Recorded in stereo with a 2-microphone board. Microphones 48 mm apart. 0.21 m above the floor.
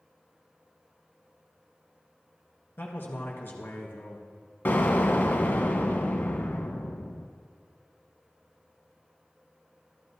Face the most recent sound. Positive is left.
turn(degrees=45)  # may be behind; listen again after turning